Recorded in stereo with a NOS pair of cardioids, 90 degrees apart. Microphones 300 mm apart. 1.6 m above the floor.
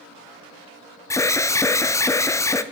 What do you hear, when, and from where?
1.1 s an alarm: 10° left, 0.5 m